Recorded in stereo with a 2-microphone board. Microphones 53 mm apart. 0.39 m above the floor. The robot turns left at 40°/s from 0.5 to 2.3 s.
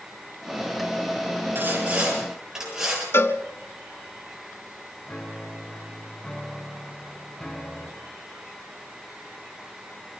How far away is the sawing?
About 7.5 m.